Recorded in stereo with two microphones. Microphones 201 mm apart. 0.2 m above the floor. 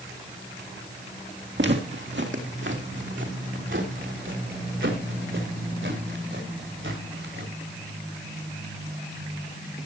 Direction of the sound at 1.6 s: 65° right (ahead or behind).